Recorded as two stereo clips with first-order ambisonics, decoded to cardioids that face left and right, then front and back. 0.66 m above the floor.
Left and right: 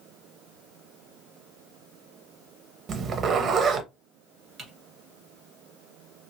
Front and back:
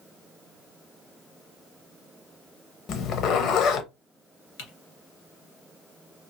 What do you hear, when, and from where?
2.9 s a zipper: 40° right, 0.5 m
4.6 s typing on a keyboard: 15° right, 1.6 m